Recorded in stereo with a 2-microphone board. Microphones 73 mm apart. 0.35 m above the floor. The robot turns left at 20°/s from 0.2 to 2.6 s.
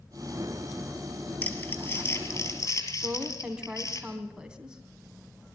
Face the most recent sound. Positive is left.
turn(degrees=-10)  # may be behind; listen again after turning